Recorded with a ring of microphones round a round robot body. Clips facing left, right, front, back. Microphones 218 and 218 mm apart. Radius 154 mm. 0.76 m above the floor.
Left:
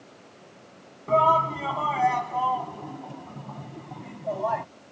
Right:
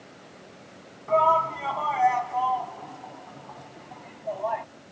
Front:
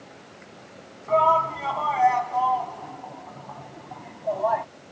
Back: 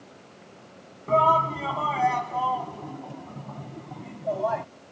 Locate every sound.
1.1 s a shout: 135° left; by 4.7 s 125° left